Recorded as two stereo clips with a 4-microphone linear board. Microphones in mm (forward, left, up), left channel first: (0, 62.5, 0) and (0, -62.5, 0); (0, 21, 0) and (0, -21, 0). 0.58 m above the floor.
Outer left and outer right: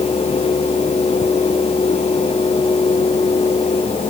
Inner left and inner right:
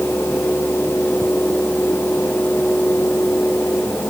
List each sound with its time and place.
Only background noise.